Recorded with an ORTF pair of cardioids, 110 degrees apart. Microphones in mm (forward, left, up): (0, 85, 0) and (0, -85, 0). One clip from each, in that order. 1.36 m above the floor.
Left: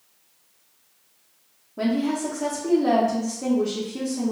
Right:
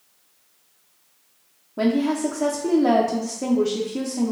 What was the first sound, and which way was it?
A woman speaking, 20° right.